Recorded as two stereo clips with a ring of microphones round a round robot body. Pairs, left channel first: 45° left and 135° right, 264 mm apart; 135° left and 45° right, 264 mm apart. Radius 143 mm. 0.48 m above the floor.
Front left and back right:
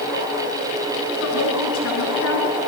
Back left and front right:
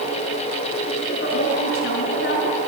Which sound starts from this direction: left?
A woman speaking, at 1.2 s.